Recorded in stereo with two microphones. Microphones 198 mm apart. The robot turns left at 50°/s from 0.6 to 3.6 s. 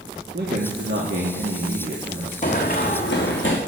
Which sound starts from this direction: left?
Running footsteps, at 2.4 s.